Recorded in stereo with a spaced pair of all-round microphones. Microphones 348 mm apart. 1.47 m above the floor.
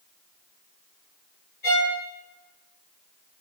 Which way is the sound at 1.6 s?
70° left (ahead or behind).